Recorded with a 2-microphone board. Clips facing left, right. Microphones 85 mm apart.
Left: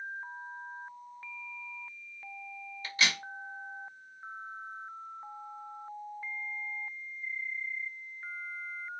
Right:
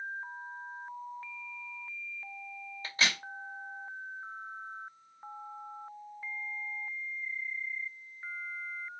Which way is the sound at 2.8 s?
35° right (ahead or behind).